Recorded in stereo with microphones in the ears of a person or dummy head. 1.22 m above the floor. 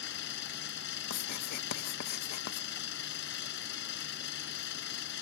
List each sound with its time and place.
0.0 s an engine running: 65° left (ahead or behind)
1.1 s writing: 55° left (ahead or behind)